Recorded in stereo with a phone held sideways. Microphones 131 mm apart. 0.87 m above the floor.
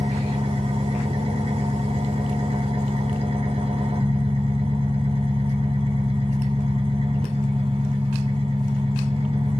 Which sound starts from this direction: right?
An engine running, at 0.0 s.